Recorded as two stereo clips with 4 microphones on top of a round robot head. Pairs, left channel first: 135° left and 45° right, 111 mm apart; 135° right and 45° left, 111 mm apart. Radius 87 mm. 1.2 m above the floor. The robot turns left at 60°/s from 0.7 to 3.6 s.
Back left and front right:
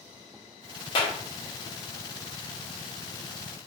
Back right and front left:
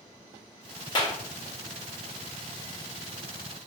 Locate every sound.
0.9 s a clap: 175° left, 0.8 m; by 1.2 s 165° left, 0.8 m